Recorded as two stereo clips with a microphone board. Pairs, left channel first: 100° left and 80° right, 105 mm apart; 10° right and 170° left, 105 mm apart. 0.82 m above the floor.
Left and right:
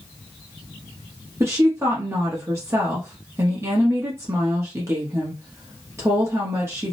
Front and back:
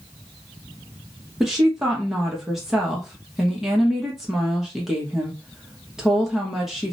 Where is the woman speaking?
110° right, 0.9 m.